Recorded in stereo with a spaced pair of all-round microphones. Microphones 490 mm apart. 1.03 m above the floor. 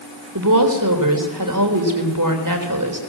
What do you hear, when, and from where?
0.3 s a woman speaking: 40° right (ahead or behind), 3.5 m